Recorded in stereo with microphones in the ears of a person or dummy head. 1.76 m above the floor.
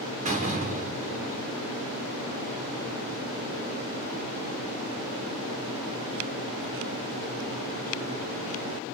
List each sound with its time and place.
0.2 s a door slam: 40° right (ahead or behind), 1.3 m